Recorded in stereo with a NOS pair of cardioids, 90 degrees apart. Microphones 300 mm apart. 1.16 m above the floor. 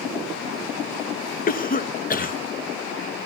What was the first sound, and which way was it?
A cough, 30° left.